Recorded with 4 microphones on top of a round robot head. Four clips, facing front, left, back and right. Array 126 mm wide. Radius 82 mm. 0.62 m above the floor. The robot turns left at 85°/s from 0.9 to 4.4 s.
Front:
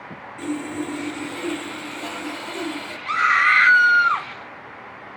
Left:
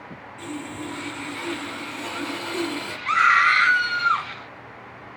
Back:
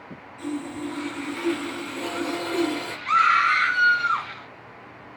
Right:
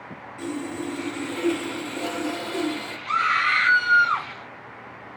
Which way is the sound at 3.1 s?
65° left.